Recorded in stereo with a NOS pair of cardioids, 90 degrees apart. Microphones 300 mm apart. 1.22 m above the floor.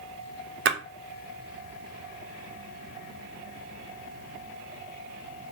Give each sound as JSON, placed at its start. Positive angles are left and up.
{"t": 0.7, "sound": "a splash", "azimuth_deg": -40, "distance_m": 0.6}